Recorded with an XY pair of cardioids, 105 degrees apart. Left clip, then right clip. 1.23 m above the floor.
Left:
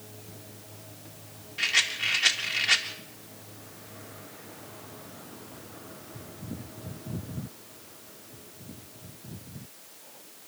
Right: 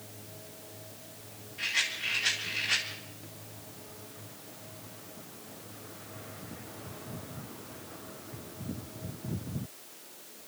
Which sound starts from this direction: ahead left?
A rattle, at 1.6 s.